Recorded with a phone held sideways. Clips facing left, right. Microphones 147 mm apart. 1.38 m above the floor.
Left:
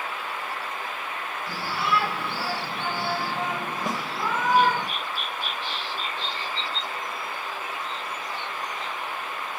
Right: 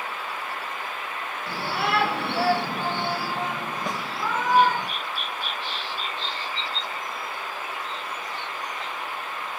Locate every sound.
1.5 s a shout: 60° right (ahead or behind), 2 m; by 4.9 s 25° left (ahead or behind), 3.5 m
3.9 s a snare drum: 5° left (ahead or behind), 0.8 m